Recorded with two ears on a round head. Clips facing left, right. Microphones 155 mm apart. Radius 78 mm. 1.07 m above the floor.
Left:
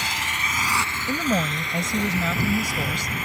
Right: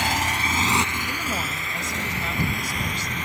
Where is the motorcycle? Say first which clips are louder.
Right 6 dB; 50° right (ahead or behind); by 3.3 s 5° left (ahead or behind).